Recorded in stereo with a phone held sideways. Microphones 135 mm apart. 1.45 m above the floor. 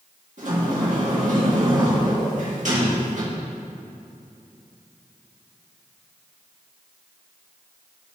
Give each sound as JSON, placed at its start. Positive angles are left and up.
{"t": 0.4, "sound": "a sliding door", "side_deg": -65, "distance_m": 2.0}